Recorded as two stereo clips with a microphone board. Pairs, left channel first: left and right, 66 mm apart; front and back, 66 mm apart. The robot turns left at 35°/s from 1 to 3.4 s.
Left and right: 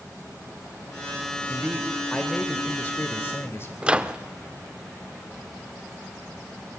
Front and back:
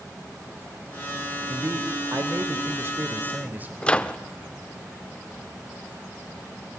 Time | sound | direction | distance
1.5 | a man speaking | 170° right | 1.5 m
3.8 | a microwave | 45° right | 0.7 m